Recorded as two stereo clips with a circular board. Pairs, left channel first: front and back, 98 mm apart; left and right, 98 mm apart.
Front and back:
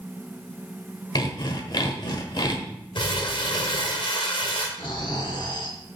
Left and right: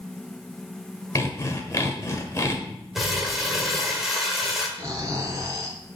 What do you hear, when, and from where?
1.1 s sawing: 35° left, 1.2 m
3.0 s crumpling: 5° right, 1.9 m
4.8 s snoring: 35° right, 1.8 m